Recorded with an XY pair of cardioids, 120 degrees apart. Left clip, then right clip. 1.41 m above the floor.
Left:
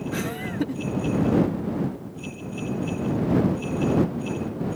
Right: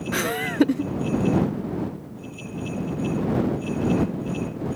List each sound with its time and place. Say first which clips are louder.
0.1 s laughter: right 9 dB; 55° right